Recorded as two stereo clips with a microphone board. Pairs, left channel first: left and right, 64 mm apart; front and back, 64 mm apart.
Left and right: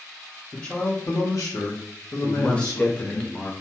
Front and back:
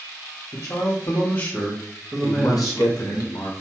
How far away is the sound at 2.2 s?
About 0.6 m.